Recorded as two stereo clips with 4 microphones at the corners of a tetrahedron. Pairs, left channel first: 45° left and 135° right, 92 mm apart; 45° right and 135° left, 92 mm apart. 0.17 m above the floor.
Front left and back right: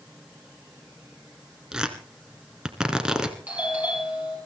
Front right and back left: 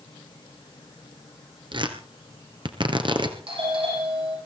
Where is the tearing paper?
145° left, 2 m.